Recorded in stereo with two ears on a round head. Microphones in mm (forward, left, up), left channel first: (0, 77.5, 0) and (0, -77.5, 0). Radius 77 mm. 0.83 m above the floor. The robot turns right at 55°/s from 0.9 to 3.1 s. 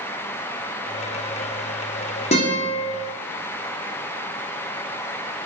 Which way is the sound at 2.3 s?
40° left (ahead or behind).